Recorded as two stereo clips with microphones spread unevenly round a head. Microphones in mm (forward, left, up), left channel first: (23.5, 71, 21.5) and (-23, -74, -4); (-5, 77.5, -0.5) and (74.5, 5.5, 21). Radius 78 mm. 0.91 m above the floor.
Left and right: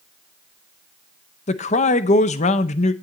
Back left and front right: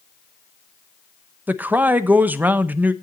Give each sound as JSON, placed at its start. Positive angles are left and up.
{"t": 1.5, "sound": "a man speaking", "azimuth_deg": 40, "distance_m": 0.9}